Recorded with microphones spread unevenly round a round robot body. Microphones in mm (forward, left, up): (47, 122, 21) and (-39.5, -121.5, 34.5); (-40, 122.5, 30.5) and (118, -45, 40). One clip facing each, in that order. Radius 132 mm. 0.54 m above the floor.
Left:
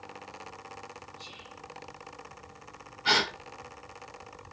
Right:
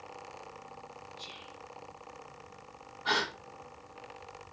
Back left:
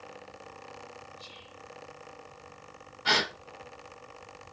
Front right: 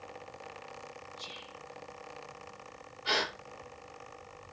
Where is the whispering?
50° right, 6.5 m.